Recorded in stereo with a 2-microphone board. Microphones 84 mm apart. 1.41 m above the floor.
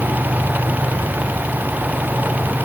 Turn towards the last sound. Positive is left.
No sound to turn to.